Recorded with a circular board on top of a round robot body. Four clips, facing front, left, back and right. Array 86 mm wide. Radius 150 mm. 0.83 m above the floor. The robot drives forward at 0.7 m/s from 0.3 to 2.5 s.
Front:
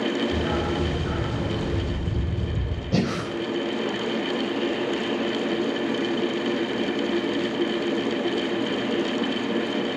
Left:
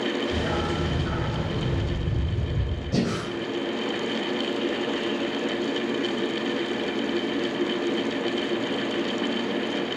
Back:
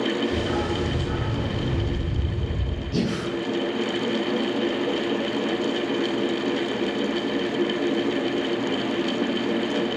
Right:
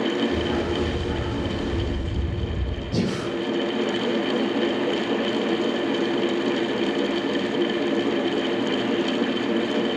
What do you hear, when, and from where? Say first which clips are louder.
0.3 s a dog barking: right 3 dB, even; 40° left, 6 m; by 2.8 s 55° left, 5 m
2.9 s breathing: right 1 dB, front 1 dB; 10° left, 3.5 m